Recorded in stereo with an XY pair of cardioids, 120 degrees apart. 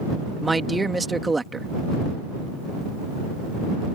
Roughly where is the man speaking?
Ahead.